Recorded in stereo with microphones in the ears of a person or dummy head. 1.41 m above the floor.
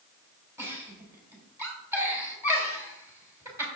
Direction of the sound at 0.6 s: 10° right (ahead or behind).